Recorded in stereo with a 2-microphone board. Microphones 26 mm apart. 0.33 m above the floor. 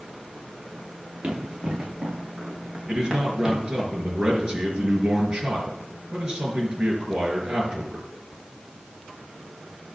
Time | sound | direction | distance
1.2 | running footsteps | 40° right (ahead or behind) | 5.5 m
2.9 | a man speaking | 30° right (ahead or behind) | 4.5 m